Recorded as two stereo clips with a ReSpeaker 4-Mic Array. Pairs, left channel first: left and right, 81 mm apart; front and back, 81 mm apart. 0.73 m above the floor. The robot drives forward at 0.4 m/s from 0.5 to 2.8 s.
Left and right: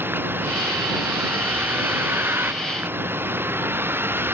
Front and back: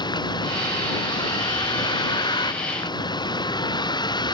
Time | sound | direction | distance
0.0 | a vehicle | 25° right | ?